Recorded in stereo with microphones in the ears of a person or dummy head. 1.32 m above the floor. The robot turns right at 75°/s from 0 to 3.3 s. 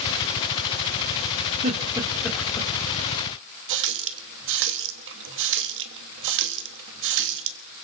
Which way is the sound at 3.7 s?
70° right (ahead or behind).